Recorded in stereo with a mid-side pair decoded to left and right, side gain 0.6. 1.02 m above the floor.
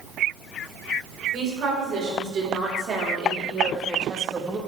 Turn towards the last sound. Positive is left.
turn(degrees=-20)